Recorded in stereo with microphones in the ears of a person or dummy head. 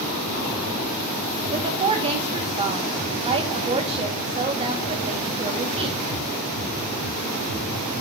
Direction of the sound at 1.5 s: 30° right (ahead or behind).